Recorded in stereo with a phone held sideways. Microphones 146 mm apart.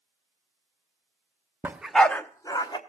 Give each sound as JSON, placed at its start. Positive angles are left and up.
{"t": 1.6, "sound": "a dog barking", "side_deg": -15, "distance_m": 0.7}